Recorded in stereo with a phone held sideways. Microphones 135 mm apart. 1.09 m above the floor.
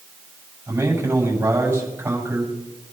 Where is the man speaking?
20° right (ahead or behind), 7 m.